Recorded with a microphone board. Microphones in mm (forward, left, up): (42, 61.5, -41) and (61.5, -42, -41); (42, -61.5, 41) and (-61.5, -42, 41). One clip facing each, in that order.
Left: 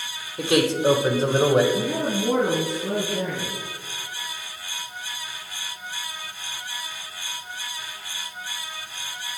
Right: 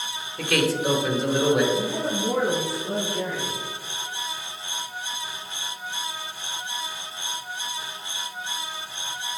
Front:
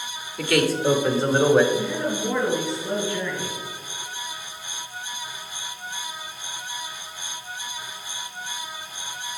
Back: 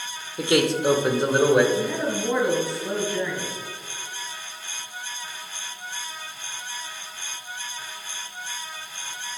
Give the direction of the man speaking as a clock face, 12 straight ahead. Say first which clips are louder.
Left 3 dB, even; 7 o'clock.